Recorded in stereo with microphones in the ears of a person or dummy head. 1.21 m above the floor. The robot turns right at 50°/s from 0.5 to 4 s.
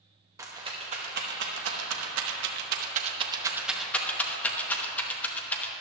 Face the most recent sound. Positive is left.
turn(degrees=5)  # may be behind; listen again after turning